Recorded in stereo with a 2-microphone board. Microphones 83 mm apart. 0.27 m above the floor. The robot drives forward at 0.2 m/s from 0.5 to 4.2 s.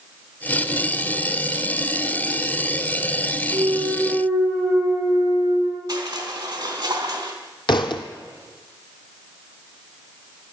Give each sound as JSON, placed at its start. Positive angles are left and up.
{"t": 3.5, "sound": "a clunk", "side_deg": -20, "distance_m": 5.5}
{"t": 5.9, "sound": "crushing", "side_deg": -45, "distance_m": 2.5}
{"t": 7.7, "sound": "a thud", "side_deg": 60, "distance_m": 1.2}